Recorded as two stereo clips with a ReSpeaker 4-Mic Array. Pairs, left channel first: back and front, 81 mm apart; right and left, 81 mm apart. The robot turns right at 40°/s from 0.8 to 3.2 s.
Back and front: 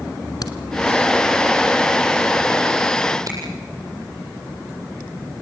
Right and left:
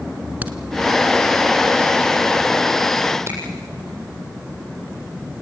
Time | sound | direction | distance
0.4 | a crack | 155° left | 1.4 m
3.3 | a finger snap | 35° left | 7.5 m